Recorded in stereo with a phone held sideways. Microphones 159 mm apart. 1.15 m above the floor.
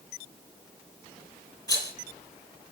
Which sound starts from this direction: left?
A rattle, at 1.7 s.